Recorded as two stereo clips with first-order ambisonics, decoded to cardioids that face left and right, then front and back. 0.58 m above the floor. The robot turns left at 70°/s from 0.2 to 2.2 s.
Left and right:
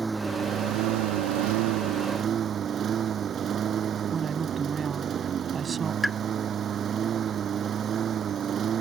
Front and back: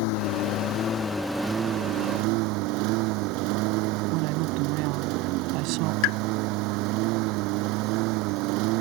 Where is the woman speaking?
160° right.